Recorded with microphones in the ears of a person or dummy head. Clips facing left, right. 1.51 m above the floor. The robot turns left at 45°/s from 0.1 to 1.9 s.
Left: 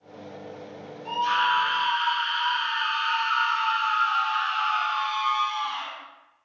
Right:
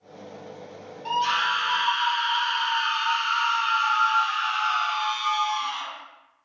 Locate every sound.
1.1 s a scream: 70° right, 0.9 m; by 5.9 s 110° right, 0.9 m